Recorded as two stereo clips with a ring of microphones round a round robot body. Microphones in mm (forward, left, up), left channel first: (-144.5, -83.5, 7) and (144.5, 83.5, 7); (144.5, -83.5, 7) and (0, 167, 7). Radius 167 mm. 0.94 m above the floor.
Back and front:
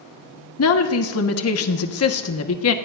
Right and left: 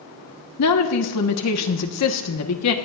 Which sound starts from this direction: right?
A woman speaking, at 0.6 s.